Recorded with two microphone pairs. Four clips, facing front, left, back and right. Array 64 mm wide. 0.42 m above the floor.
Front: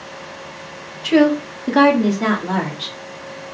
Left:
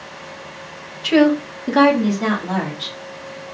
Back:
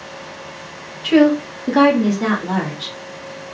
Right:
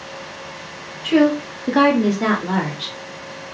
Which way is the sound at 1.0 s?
105° left.